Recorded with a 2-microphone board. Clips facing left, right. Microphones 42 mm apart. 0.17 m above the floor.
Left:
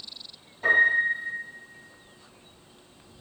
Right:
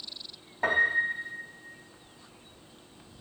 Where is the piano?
45° right (ahead or behind), 1.8 m.